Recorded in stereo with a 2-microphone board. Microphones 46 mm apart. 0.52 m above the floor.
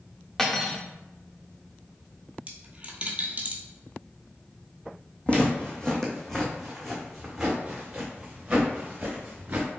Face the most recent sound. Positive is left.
turn(degrees=-20)  # may be behind; listen again after turning